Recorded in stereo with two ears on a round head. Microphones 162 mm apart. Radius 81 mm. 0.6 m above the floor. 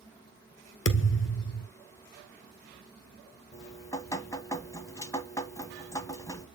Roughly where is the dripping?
Centre.